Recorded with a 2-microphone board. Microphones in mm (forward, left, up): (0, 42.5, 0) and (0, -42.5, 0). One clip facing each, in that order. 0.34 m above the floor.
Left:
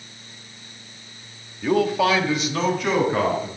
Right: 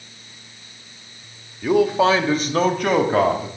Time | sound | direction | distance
1.6 | a man speaking | 5° right (ahead or behind) | 0.9 m